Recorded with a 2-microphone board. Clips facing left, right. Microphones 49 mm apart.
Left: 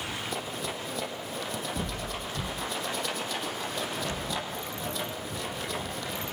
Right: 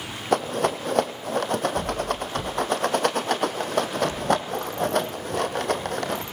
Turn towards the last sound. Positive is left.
turn(degrees=-60)  # may be behind; listen again after turning